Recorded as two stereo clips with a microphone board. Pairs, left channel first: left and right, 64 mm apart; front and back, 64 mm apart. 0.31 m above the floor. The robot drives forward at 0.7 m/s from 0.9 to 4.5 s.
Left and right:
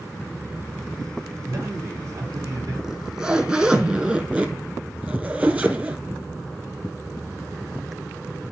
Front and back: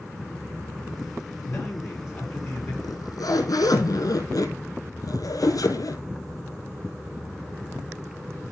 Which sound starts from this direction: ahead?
A zipper, at 2.8 s.